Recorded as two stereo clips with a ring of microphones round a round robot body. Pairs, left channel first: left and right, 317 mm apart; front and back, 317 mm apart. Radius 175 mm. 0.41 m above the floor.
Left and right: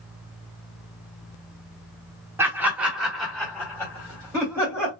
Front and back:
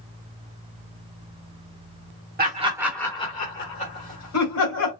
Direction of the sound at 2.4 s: 165° right.